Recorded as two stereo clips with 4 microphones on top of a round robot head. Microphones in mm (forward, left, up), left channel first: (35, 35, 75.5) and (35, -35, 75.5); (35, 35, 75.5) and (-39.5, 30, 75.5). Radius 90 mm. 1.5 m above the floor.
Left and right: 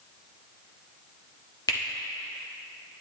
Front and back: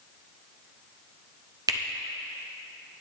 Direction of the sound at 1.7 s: 140° left.